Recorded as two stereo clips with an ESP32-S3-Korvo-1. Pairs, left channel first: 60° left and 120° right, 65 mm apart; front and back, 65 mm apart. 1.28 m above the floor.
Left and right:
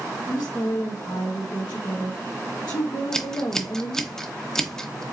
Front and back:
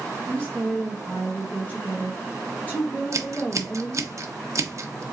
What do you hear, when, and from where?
0.3 s a woman speaking: 70° left, 1.0 m
3.1 s scissors: 140° left, 0.8 m